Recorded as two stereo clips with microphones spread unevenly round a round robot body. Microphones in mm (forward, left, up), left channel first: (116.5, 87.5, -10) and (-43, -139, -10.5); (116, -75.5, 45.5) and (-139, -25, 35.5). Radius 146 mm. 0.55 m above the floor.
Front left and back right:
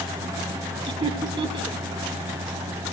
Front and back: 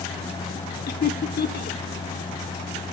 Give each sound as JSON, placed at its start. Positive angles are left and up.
{"t": 0.9, "sound": "laughter", "azimuth_deg": -60, "distance_m": 1.4}